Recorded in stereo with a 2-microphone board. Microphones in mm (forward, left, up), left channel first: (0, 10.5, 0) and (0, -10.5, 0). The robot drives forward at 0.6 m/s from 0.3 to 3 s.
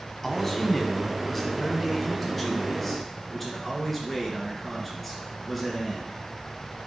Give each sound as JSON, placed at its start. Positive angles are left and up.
{"t": 0.2, "sound": "a man speaking", "side_deg": 15, "distance_m": 1.2}